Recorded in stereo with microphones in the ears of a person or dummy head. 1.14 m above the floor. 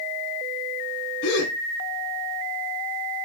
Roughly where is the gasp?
Left.